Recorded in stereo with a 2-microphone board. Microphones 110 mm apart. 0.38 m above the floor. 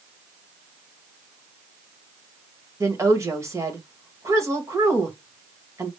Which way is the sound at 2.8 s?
25° right (ahead or behind).